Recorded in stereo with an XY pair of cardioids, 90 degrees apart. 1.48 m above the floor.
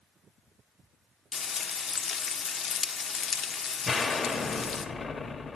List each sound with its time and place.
1.3 s frying: 50° left, 0.6 m
3.9 s an explosion: 40° left, 0.8 m